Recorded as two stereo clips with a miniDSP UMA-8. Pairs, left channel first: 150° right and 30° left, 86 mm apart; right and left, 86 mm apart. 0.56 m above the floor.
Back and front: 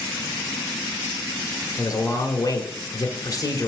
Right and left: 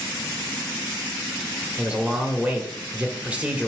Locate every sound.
1.8 s a man speaking: 165° left, 1.5 m